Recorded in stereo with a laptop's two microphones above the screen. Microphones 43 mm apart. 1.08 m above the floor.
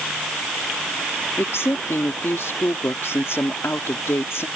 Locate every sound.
1.4 s a woman speaking: 80° left